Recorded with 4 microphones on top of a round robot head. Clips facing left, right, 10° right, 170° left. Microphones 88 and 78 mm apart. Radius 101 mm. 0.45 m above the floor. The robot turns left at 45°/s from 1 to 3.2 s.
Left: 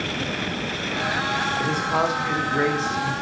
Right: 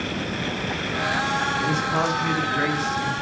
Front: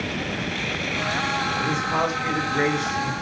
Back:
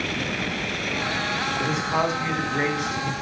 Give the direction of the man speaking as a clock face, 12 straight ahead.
9 o'clock.